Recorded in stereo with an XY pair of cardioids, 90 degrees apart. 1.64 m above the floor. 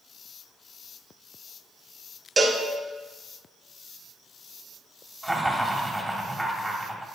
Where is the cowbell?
30° right, 0.9 m.